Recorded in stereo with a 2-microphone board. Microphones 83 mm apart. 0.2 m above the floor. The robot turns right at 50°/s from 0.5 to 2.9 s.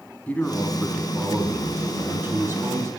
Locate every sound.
0.3 s a man speaking: 140° left, 1.1 m; by 2.9 s 100° right, 1.1 m